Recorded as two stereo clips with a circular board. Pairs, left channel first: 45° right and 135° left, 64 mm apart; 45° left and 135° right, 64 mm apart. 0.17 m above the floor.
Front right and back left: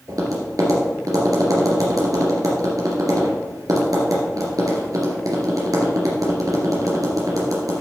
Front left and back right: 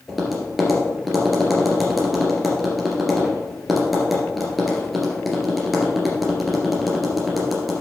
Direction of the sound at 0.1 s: 135° left.